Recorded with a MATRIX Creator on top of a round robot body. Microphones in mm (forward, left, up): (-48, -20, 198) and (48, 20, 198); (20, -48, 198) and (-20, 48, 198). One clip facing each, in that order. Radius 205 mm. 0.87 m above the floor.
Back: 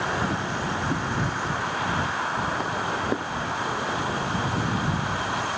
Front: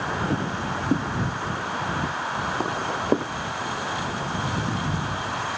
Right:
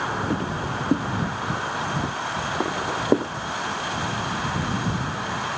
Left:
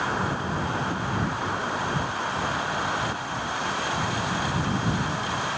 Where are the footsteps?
20° right; by 3.3 s 45° right.